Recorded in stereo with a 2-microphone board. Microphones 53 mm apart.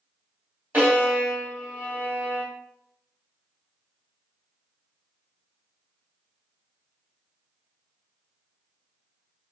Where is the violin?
30° right (ahead or behind), 1.5 m.